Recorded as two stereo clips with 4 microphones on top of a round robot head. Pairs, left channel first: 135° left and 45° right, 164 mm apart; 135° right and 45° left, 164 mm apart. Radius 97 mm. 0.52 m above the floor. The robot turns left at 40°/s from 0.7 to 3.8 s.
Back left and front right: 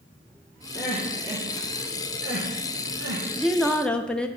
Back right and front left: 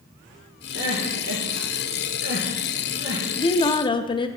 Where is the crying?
65° left, 2 m; by 3.2 s 35° right, 2 m.